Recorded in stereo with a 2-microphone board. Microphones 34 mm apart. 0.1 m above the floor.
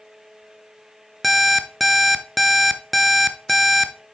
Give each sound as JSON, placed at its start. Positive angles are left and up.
{"t": 1.2, "sound": "an alarm clock", "side_deg": 0, "distance_m": 0.6}